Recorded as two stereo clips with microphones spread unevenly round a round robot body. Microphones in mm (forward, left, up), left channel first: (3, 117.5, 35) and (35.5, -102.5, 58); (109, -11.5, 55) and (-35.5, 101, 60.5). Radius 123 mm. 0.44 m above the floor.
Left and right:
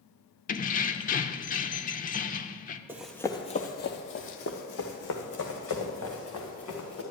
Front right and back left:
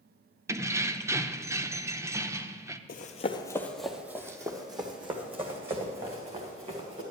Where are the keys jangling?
70° left, 0.6 m.